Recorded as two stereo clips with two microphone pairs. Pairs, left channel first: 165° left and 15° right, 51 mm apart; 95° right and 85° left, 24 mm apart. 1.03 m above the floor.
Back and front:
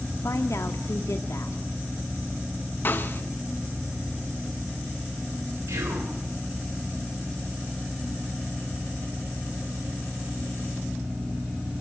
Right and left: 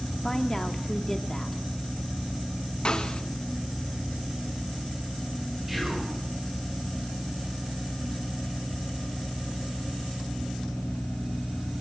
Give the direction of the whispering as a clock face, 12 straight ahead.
12 o'clock.